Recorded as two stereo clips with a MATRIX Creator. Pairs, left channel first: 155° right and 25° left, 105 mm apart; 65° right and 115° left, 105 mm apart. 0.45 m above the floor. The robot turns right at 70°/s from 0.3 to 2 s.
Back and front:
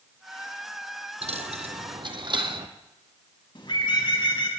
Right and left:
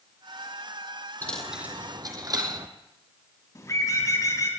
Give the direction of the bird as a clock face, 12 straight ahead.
4 o'clock.